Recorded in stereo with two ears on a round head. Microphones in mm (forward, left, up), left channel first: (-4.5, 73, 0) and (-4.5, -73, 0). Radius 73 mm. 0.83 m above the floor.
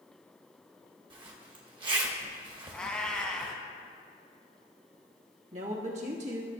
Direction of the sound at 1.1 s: 30° right (ahead or behind).